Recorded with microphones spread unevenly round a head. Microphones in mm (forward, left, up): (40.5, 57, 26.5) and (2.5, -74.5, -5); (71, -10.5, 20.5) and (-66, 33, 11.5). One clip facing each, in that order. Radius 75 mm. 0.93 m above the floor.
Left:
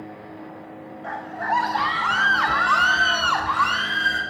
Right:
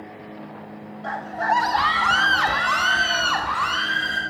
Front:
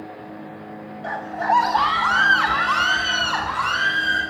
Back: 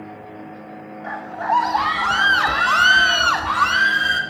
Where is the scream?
75° right, 1.6 m; by 4.2 s 165° left, 3.5 m.